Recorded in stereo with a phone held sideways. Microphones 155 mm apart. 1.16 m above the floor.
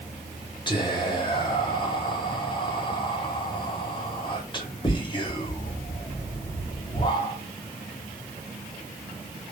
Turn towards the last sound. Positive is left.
turn(degrees=30)  # may be behind; listen again after turning